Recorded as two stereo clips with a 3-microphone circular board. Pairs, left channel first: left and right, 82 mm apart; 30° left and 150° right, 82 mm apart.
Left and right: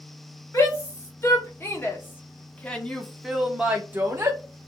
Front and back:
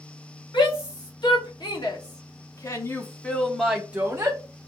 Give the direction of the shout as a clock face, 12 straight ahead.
11 o'clock.